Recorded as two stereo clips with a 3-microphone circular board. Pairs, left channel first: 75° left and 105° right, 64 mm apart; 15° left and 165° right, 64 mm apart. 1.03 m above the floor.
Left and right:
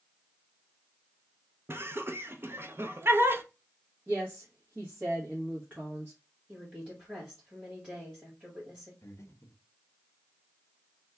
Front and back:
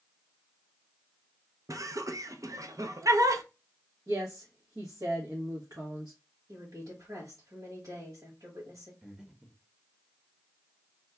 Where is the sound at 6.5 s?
175° right, 1.9 m.